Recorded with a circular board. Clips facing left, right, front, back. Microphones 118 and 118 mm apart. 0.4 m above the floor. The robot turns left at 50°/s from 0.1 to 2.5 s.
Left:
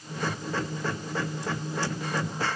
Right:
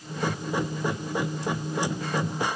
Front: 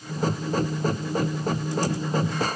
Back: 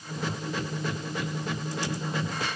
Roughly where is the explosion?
I don't hear an explosion.